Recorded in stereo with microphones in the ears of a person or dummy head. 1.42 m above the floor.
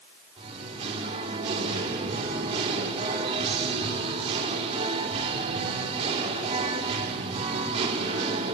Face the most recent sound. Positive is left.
turn(degrees=-30)  # may be behind; listen again after turning